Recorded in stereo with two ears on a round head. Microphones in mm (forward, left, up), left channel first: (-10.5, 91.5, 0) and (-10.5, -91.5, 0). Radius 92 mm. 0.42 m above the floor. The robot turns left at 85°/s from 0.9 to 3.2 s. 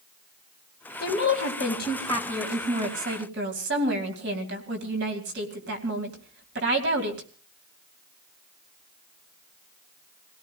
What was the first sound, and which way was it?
A woman speaking, 120° left.